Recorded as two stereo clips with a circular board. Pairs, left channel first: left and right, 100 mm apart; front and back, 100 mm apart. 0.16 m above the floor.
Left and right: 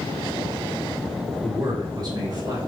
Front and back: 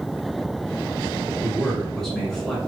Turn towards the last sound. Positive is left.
turn(degrees=-85)